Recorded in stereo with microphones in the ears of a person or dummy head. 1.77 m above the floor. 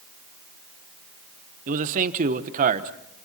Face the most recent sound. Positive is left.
turn(degrees=-40)  # may be behind; listen again after turning